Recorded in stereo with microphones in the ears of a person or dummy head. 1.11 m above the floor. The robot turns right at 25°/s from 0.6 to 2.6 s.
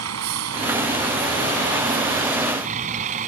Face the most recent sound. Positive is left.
turn(degrees=-45)